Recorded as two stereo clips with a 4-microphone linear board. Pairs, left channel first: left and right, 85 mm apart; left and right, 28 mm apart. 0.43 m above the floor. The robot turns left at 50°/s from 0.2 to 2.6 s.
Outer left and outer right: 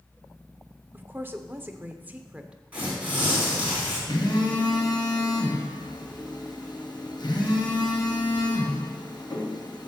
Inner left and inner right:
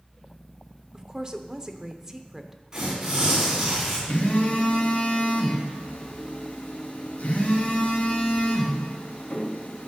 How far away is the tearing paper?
About 4.5 m.